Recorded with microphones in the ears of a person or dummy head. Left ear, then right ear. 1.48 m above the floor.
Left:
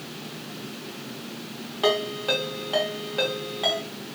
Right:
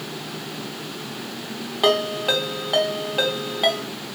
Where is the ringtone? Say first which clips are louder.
Right 4 dB; 10° right (ahead or behind), 0.8 m.